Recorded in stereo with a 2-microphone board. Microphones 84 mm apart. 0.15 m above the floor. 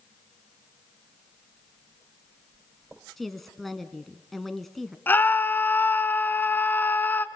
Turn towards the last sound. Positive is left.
turn(degrees=25)  # may be behind; listen again after turning